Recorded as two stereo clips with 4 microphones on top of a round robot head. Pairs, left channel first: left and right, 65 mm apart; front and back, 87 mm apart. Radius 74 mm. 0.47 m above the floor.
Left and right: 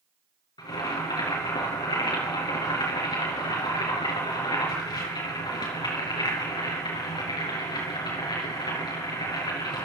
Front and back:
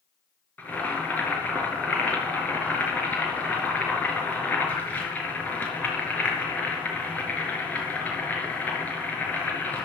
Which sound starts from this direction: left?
Boiling, at 0.6 s.